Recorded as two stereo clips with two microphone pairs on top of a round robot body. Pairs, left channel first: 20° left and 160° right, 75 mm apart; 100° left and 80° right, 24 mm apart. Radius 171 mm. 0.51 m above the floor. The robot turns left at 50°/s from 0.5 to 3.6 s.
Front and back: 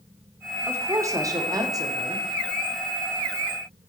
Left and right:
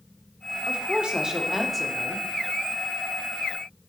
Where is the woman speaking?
110° right, 2.5 m; by 2.3 s 170° left, 2.5 m.